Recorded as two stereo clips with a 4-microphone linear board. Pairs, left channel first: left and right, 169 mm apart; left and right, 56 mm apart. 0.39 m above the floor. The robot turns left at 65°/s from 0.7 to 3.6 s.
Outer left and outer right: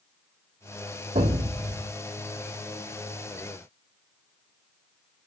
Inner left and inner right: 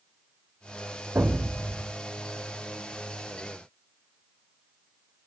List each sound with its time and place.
1.1 s an explosion: 80° right, 1.0 m; by 1.9 s 130° right, 1.0 m